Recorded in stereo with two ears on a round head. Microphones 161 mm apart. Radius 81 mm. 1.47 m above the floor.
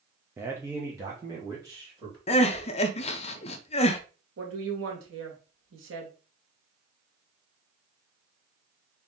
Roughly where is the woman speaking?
Right.